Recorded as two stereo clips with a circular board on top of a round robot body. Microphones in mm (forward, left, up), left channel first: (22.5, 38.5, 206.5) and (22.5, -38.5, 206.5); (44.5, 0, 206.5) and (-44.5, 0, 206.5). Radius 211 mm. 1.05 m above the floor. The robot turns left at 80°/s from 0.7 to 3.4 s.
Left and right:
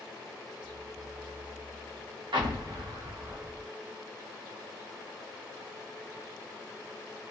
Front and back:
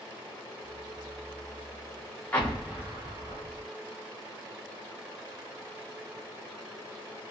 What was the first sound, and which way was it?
An explosion, 70° right.